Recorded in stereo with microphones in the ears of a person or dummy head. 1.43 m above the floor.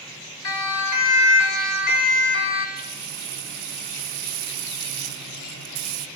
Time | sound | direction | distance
0.4 | a siren | 85° left | 4 m
2.8 | frying | 60° right (ahead or behind) | 1.7 m